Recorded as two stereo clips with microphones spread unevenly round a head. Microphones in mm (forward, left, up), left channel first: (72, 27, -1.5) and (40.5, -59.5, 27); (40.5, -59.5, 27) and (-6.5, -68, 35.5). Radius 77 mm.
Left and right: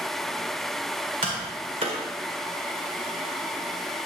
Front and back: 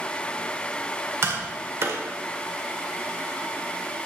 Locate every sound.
1.2 s tapping: 150° right, 1.8 m